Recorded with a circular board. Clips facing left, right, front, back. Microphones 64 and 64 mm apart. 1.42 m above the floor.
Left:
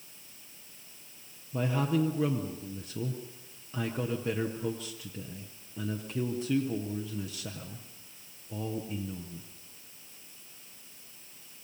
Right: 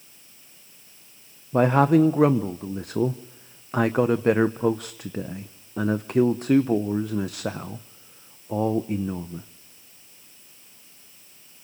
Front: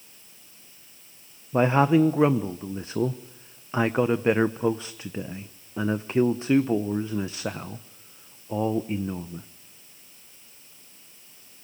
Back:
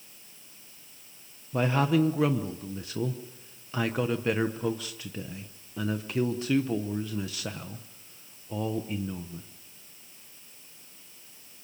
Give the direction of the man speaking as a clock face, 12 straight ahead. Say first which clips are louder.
Right 12 dB, front 6 dB; 2 o'clock.